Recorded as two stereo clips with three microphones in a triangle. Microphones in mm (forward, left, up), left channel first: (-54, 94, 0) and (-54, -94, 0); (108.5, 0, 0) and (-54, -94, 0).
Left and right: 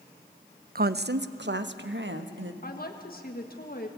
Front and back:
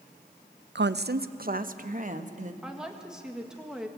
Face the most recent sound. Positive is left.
turn(degrees=125)